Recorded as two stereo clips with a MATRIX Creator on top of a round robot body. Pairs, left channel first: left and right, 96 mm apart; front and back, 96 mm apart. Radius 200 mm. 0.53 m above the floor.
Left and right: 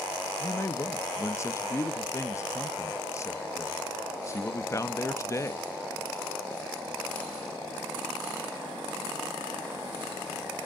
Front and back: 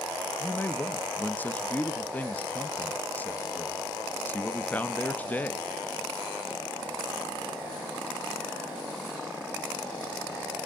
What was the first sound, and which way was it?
A man speaking, 60° left.